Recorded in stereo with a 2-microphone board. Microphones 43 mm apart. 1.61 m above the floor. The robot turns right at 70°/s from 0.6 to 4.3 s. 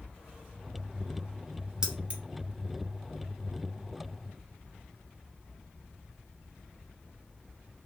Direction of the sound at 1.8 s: 20° right (ahead or behind).